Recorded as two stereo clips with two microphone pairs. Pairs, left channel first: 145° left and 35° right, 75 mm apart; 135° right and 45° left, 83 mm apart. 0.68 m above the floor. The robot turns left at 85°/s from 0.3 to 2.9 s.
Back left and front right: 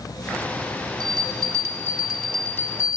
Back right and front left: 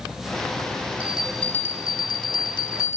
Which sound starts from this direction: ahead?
A bell, at 1.0 s.